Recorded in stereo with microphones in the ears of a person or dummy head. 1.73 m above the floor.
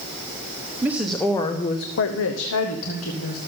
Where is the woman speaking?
10° right (ahead or behind), 1.0 m; by 3.4 s 75° left (ahead or behind), 1.9 m.